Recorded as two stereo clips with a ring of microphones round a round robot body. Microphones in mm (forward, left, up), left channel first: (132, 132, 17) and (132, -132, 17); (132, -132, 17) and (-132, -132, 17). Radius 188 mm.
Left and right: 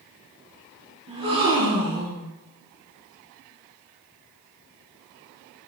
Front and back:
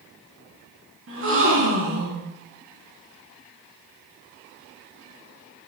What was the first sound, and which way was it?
A gasp, 145° right.